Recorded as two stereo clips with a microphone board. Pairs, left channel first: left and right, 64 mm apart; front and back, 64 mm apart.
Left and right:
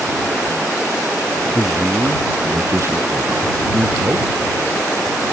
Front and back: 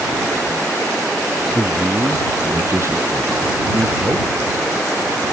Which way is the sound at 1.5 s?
135° right.